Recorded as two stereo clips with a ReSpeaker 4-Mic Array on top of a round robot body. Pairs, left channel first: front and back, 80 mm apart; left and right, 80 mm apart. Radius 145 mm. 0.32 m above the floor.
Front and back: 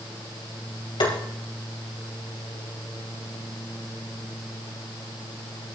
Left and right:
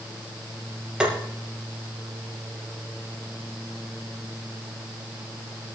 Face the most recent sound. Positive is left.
turn(degrees=-10)